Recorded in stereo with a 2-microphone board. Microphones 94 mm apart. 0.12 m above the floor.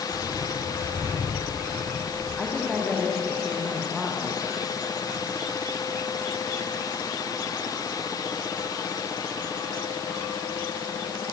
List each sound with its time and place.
0.1 s footsteps: 35° right (ahead or behind), 10 m; by 2.3 s 30° right (ahead or behind), 11 m
2.4 s a woman speaking: 5° left (ahead or behind), 7 m